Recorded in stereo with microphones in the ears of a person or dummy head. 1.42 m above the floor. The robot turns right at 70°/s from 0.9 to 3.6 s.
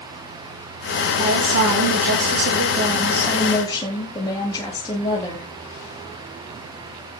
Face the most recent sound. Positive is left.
turn(degrees=25)